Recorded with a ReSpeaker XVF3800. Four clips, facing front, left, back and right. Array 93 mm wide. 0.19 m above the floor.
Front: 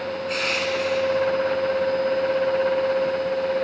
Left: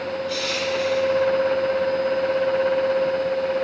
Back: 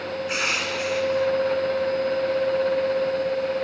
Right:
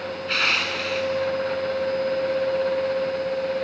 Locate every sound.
0.3 s crushing: 110° right, 2.5 m